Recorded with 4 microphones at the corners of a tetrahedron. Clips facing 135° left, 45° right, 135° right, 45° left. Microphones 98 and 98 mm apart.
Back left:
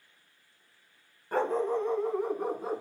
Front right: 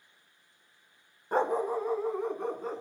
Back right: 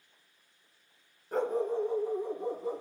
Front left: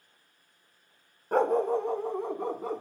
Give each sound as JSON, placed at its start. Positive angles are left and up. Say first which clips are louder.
{"t": 1.3, "sound": "a dog barking", "louder": "even, front left 5 dB", "azimuth_deg": 25, "distance_m": 0.9}